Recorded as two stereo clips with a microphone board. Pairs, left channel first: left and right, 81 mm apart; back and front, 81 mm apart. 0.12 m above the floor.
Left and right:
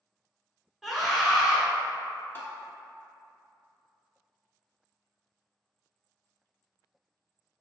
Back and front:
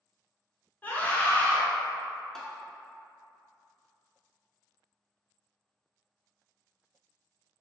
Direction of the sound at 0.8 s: Straight behind.